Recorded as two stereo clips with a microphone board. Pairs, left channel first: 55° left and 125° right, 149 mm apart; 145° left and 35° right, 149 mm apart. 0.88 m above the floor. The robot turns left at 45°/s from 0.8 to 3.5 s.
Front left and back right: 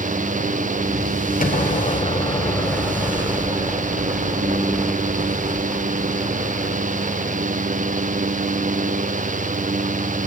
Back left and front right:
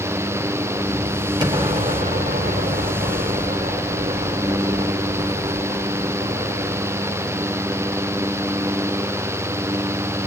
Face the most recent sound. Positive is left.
turn(degrees=-65)